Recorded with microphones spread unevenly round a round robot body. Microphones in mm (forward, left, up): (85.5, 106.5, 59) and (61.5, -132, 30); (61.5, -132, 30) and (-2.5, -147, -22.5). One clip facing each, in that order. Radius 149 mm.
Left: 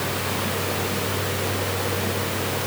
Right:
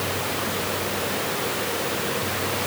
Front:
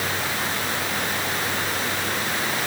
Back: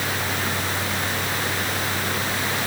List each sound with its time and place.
Only background noise.